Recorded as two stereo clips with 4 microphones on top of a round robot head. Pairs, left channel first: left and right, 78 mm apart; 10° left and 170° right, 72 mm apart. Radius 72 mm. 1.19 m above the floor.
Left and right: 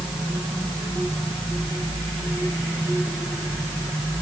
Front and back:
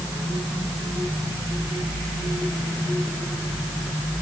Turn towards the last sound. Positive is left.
No sound to turn to.